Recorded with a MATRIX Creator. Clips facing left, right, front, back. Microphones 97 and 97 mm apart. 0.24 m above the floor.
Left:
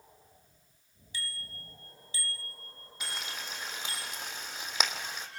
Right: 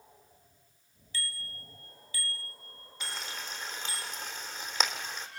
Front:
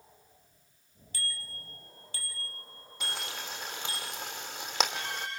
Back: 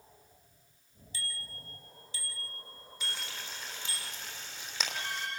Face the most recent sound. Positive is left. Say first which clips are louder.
# even, front 4 dB
turn(degrees=10)